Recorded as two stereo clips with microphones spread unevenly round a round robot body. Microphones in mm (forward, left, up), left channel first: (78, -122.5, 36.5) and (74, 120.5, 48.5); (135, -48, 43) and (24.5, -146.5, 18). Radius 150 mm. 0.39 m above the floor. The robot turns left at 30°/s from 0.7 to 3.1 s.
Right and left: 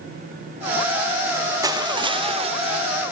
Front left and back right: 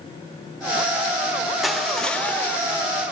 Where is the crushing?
155° left, 1.1 m; by 2.8 s 120° left, 1.1 m.